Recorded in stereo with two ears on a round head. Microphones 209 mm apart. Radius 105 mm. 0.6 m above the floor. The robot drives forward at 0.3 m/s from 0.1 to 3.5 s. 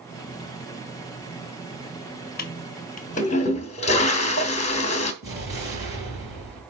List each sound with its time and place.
2.4 s a toilet flushing: 40° left (ahead or behind), 0.8 m; by 5.1 s 30° left (ahead or behind), 1.0 m
5.2 s an explosion: 15° right (ahead or behind), 4.5 m